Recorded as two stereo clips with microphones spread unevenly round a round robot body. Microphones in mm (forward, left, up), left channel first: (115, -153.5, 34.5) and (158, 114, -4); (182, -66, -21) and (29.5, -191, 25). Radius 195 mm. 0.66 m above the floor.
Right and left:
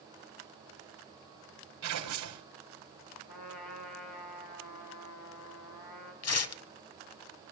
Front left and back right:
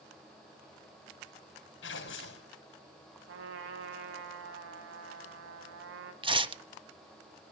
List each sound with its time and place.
1.8 s tearing paper: 75° left, 4.5 m
3.3 s a trumpet: 150° right, 2 m
6.2 s tearing paper: 80° right, 1.3 m